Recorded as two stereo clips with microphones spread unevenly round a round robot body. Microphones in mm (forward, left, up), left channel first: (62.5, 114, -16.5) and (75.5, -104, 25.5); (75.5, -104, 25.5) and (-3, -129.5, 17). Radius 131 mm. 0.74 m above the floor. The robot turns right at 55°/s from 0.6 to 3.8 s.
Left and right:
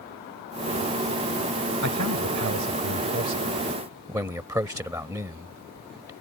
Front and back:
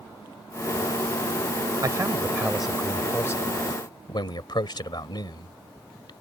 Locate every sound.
1.8 s a man speaking: 120° right; by 6.1 s 10° right